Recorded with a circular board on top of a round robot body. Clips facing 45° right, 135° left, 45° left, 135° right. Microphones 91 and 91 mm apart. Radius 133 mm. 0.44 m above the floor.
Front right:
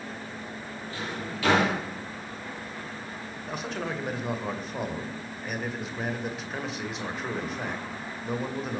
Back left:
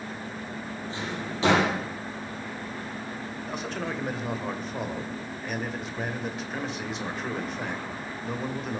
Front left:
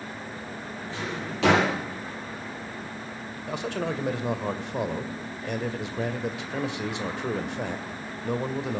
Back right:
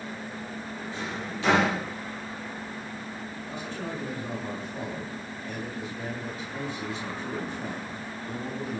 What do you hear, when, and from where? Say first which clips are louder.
0.9 s a drawer: back left 1 dB, front left 2 dB; 70° left, 5.5 m
3.5 s a man speaking: front right 1 dB, front left 7 dB; 45° left, 2 m